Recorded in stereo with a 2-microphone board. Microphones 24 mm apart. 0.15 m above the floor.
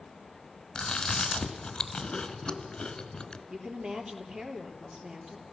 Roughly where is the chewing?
Left.